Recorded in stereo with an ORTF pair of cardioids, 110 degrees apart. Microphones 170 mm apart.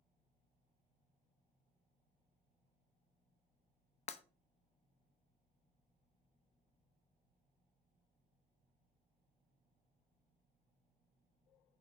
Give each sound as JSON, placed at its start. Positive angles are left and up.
{"t": 4.1, "sound": "breaking glass", "azimuth_deg": 40, "distance_m": 0.8}